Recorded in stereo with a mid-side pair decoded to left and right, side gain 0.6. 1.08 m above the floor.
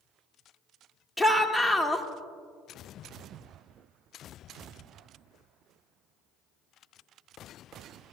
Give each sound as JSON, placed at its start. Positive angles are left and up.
{"t": 1.2, "sound": "a shout", "azimuth_deg": 0, "distance_m": 1.4}